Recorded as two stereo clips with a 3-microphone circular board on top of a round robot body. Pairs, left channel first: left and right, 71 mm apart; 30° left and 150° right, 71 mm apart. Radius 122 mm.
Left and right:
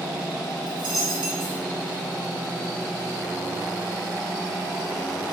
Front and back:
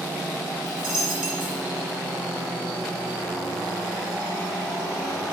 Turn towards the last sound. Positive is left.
turn(degrees=-70)